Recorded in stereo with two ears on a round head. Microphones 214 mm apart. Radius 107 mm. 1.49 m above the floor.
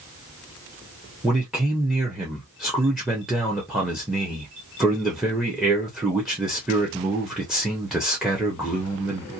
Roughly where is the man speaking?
Centre.